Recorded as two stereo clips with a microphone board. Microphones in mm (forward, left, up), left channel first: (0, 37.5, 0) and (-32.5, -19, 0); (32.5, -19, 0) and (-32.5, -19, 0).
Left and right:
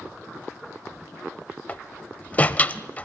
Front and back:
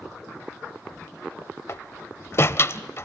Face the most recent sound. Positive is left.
turn(degrees=10)